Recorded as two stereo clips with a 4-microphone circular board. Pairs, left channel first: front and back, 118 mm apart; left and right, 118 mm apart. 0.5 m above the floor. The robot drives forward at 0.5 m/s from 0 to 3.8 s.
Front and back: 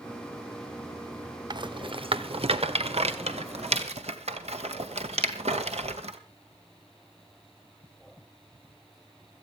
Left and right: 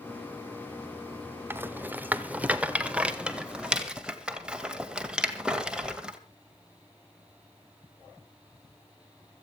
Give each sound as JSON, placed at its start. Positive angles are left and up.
{"t": 1.5, "sound": "a rattle", "azimuth_deg": -150, "distance_m": 0.8}